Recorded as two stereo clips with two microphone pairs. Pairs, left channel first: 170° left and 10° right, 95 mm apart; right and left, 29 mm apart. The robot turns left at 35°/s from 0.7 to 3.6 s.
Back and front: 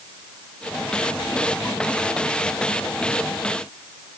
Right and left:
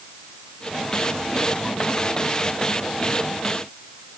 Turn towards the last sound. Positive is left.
No sound to turn to.